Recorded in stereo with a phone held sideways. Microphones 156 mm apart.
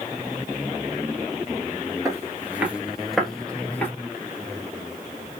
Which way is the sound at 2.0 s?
20° right (ahead or behind).